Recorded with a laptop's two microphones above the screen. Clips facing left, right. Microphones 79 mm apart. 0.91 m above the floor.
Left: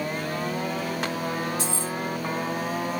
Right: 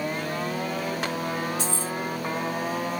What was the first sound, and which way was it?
Keys jangling, 40° left (ahead or behind).